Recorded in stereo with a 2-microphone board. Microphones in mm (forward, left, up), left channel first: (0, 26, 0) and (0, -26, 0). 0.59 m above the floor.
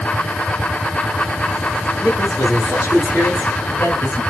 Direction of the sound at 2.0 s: 50° left (ahead or behind).